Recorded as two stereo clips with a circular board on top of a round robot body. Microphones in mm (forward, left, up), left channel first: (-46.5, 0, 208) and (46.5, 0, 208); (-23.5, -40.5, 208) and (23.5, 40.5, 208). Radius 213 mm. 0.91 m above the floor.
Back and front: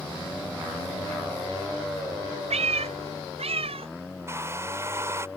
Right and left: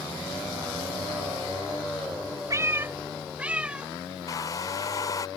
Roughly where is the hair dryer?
Ahead right.